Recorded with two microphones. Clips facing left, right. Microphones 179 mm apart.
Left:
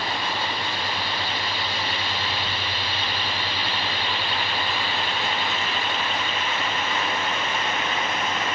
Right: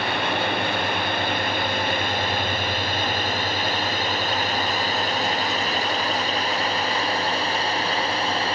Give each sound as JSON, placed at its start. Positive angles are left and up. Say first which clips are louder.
{"t": 0.0, "sound": "a drone", "louder": "right 4 dB", "side_deg": -60}